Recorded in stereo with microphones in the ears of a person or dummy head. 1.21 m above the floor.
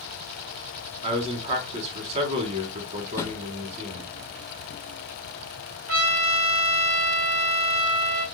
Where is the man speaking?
40° right (ahead or behind), 2.5 m.